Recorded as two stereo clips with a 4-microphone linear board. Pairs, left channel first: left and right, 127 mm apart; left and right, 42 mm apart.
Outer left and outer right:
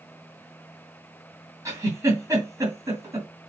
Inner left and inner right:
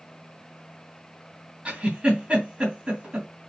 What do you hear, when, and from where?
1.6 s a giggle: 25° right (ahead or behind), 2.5 m